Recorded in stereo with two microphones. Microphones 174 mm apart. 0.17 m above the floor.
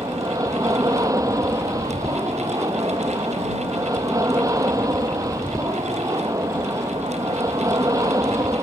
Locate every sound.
0.0 s an aircraft: 20° right (ahead or behind)